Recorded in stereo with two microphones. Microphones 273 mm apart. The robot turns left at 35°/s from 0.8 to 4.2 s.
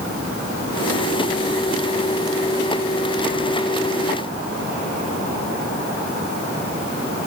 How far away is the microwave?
I don't hear a microwave.